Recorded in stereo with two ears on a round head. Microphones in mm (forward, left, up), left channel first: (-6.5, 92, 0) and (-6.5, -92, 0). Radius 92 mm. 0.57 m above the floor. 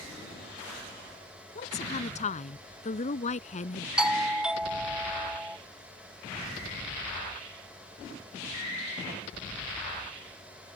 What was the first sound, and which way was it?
A woman speaking, 35° left (ahead or behind).